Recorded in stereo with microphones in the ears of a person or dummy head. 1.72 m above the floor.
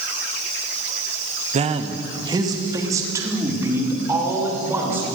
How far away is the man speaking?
About 1.4 m.